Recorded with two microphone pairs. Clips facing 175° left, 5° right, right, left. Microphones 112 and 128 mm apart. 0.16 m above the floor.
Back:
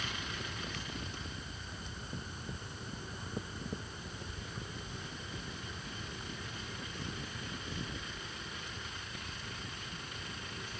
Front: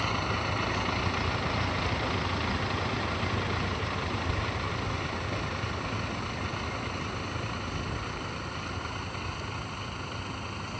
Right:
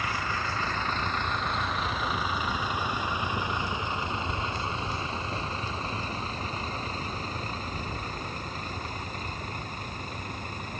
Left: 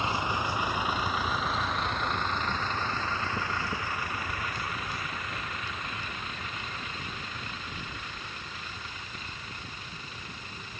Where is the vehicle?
25° left; by 10.8 s 45° right.